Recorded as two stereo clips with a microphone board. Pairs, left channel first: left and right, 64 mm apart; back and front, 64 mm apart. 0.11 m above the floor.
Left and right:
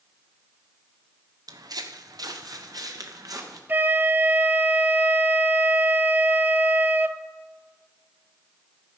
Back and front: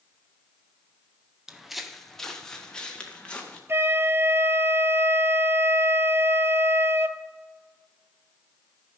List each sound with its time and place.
1.5 s footsteps: 80° right, 1.1 m; by 3.6 s 110° right, 2 m
3.7 s a flute: 35° right, 0.5 m